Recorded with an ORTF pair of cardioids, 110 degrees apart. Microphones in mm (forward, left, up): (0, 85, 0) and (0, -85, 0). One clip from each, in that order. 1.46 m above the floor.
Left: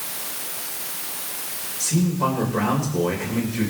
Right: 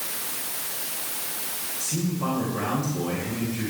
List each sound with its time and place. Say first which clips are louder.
1.8 s a man speaking: left 7 dB; 50° left, 7 m